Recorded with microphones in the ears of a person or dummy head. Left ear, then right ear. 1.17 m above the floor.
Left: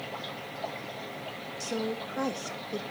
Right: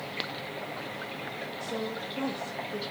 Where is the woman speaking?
65° left (ahead or behind), 1.6 m.